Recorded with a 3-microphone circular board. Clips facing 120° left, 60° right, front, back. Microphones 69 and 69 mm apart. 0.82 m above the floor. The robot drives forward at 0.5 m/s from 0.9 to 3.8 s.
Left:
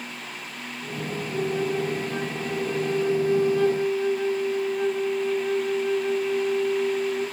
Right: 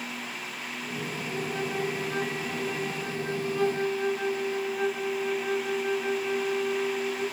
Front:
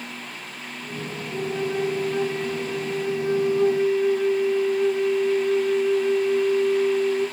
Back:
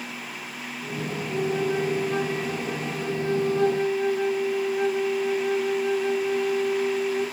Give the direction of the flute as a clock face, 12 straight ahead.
4 o'clock.